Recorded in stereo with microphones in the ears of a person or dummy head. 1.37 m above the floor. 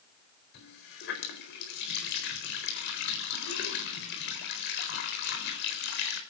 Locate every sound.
0.5 s a running tap: 60° left (ahead or behind), 4 m